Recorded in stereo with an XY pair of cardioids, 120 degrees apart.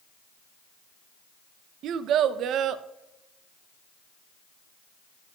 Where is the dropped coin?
I don't hear a dropped coin.